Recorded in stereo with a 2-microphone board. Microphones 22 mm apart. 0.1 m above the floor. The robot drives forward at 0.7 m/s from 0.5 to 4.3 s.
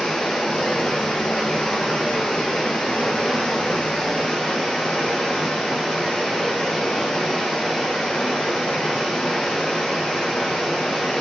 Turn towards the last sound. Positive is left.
turn(degrees=70)  # may be behind; listen again after turning